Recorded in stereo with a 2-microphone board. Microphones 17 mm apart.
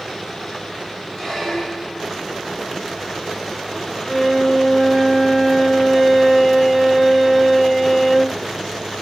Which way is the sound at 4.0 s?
25° left (ahead or behind).